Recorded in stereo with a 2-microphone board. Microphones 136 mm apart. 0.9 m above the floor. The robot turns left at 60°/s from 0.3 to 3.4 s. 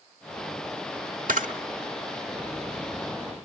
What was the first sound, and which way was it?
A camera shutter, 80° right.